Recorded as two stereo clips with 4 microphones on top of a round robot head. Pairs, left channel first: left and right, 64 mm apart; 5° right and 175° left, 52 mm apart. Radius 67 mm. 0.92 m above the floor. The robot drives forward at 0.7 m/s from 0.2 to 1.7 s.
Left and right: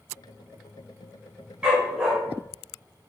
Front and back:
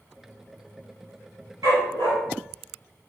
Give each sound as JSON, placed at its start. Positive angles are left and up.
{"t": 1.6, "sound": "a dog barking", "azimuth_deg": -165, "distance_m": 1.8}